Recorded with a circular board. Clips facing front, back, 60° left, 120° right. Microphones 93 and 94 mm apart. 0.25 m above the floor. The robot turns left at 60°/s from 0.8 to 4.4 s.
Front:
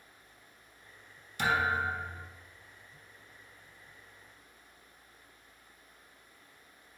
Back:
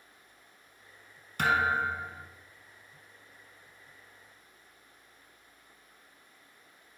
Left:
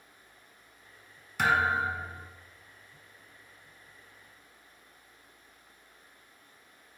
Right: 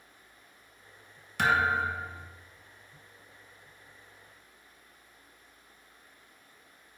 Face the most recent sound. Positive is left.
turn(degrees=-35)